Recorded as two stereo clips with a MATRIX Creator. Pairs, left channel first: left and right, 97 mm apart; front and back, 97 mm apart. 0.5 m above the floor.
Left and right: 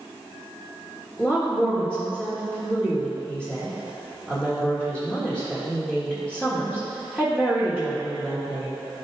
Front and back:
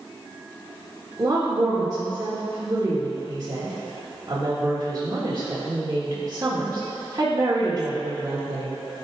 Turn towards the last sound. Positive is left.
turn(degrees=165)